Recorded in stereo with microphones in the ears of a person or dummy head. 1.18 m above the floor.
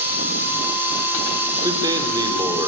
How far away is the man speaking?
About 3 m.